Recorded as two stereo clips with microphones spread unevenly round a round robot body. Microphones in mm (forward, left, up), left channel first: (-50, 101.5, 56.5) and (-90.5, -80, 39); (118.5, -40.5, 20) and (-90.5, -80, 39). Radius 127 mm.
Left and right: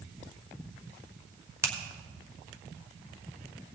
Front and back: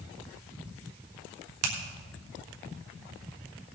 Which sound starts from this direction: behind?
A finger snap, at 1.6 s.